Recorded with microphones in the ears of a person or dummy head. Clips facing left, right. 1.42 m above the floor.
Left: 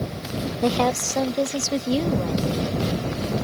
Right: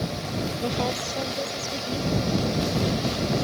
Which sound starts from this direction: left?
A woman speaking, at 0.6 s.